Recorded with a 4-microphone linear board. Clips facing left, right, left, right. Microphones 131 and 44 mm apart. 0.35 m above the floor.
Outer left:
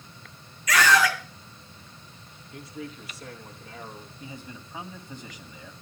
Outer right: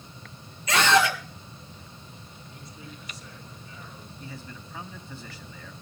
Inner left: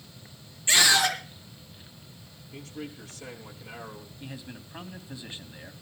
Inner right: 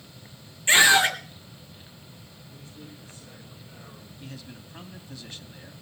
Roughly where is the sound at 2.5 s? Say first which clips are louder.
Outer left 9 dB, inner left 8 dB; left.